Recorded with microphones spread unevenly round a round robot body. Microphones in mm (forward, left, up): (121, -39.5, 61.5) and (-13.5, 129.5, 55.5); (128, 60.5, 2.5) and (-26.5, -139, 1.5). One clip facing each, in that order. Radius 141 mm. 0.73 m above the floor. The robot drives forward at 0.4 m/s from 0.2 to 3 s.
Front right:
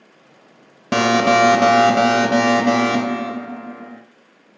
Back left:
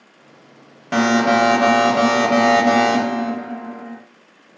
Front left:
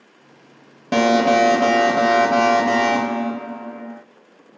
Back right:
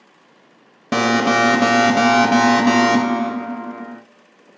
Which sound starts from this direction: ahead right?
An alarm, at 0.9 s.